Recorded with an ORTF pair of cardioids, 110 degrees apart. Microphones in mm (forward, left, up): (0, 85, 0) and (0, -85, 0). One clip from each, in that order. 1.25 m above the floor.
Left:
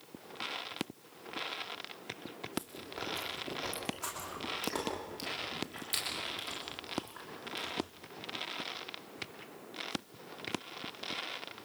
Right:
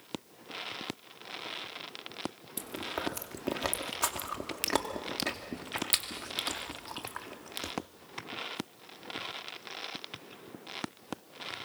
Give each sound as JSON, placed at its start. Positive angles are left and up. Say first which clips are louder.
{"t": 2.6, "sound": "chewing", "louder": "right 6 dB", "azimuth_deg": -65, "distance_m": 2.5}